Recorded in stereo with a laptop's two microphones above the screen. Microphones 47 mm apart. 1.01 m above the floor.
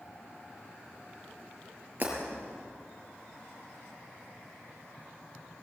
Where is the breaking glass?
35° right (ahead or behind), 6 m.